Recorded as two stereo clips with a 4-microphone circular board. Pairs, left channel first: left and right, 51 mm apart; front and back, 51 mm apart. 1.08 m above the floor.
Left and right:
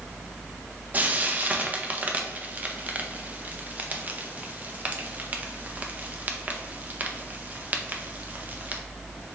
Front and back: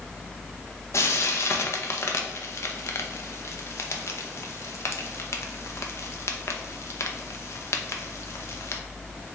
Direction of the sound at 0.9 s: 30° right.